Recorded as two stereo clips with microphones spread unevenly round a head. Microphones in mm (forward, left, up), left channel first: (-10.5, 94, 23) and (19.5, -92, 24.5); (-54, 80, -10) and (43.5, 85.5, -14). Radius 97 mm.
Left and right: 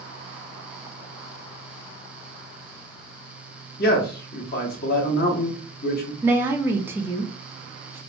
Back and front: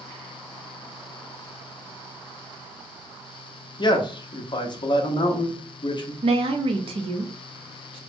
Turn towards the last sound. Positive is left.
turn(degrees=-5)